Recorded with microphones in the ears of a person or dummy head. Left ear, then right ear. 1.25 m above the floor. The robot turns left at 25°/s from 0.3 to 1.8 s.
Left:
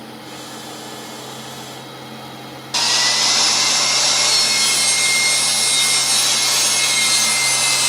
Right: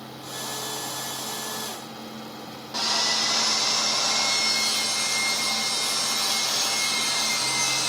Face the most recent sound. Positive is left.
turn(degrees=70)  # may be behind; listen again after turning